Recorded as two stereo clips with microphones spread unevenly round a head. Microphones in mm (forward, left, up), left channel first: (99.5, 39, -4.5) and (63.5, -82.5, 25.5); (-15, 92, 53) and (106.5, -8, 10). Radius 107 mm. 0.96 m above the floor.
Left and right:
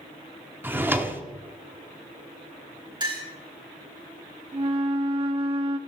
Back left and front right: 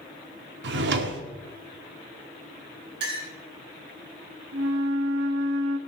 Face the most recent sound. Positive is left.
turn(degrees=-65)